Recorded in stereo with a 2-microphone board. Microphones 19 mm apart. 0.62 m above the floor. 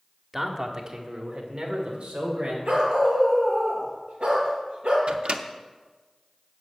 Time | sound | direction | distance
0.3 | a man speaking | 20° right (ahead or behind) | 1.4 m
2.6 | a dog barking | 60° right (ahead or behind) | 4.5 m
5.1 | a microwave | 65° right (ahead or behind) | 0.7 m